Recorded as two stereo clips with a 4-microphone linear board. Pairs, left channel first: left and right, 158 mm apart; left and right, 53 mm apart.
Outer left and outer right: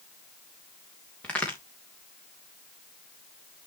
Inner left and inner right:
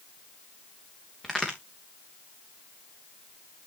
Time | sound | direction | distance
1.2 | a crack | 10° left (ahead or behind) | 3 m